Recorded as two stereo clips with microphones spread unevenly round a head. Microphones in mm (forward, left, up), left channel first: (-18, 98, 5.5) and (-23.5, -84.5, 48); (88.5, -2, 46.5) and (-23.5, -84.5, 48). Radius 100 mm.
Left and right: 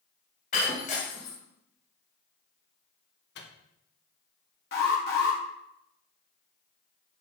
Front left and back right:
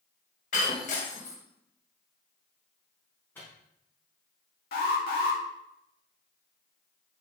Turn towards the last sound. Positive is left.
turn(degrees=50)